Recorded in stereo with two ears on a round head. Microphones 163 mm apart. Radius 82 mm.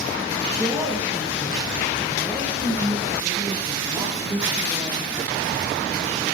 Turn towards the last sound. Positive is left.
turn(degrees=-10)  # may be behind; listen again after turning